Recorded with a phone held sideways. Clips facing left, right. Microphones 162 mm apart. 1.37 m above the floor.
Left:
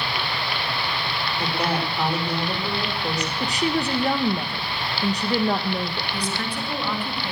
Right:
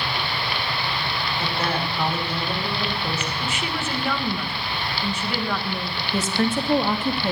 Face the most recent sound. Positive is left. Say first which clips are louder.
# right 10 dB
turn(degrees=-45)  # may be behind; listen again after turning